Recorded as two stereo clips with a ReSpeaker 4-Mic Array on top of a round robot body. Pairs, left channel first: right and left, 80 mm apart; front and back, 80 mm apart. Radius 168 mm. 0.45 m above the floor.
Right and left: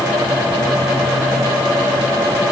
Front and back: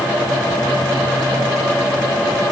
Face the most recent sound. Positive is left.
No sound to turn to.